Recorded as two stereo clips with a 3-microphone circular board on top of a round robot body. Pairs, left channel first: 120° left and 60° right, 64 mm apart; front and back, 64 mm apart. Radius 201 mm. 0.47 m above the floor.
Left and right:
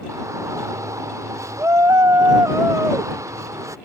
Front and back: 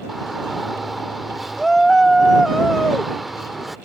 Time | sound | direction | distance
0.1 | a shout | 90° right | ?